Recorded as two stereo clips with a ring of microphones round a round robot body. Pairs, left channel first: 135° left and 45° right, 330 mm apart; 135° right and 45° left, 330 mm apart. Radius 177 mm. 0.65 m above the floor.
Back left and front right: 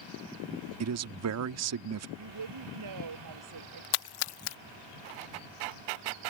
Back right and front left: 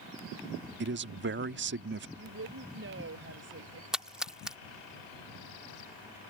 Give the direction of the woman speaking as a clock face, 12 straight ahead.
12 o'clock.